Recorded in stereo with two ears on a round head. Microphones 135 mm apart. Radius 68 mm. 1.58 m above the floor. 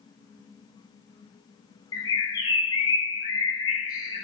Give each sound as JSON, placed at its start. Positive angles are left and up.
{"t": 1.9, "sound": "a bird", "side_deg": 25, "distance_m": 2.5}